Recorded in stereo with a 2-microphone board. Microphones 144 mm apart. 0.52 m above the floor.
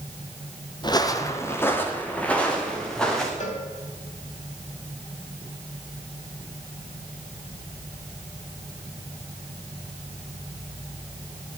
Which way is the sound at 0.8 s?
35° left (ahead or behind).